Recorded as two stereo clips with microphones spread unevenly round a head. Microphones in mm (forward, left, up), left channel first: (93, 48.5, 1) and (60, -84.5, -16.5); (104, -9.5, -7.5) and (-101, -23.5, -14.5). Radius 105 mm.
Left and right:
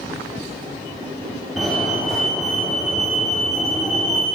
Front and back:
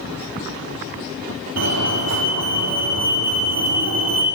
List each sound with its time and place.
1.6 s a fire alarm: 165° left, 5 m